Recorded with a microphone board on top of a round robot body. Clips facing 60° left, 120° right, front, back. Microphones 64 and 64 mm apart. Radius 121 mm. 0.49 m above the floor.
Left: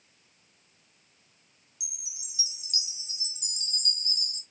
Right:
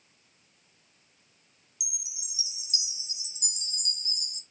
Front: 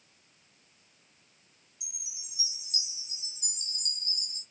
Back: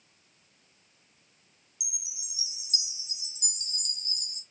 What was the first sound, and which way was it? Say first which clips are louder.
A chime: right 2 dB, back 4 dB; 155° left.